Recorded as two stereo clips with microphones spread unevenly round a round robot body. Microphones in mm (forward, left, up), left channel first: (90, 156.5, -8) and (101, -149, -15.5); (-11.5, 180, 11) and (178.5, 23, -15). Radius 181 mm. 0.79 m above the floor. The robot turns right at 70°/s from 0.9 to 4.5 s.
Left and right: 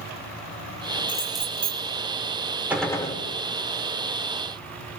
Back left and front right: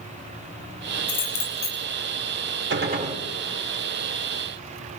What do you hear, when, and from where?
1.1 s keys jangling: 160° left, 2.5 m; by 1.8 s 145° right, 2.5 m
2.7 s a gunshot: 5° right, 2.5 m; by 3.2 s 35° left, 2.5 m